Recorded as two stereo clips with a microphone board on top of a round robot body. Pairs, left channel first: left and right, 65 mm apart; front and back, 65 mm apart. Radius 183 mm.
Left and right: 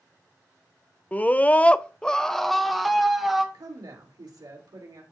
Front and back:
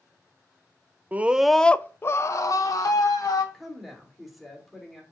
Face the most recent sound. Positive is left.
turn(degrees=-90)